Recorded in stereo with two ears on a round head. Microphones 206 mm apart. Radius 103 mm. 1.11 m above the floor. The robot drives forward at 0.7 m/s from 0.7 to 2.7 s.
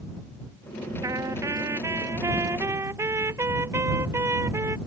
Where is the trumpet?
15° right (ahead or behind); by 4.8 s 10° right (ahead or behind).